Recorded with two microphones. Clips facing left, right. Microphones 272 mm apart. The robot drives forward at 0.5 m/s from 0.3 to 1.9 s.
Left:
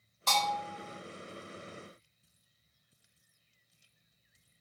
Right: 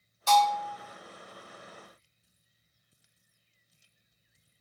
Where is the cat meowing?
I don't hear a cat meowing.